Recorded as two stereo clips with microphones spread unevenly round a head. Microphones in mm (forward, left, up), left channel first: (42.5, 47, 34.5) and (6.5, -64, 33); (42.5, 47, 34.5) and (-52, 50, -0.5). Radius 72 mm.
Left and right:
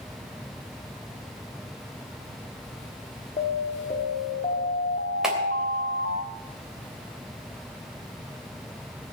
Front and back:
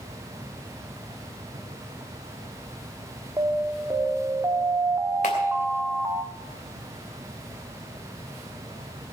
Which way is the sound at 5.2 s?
20° right.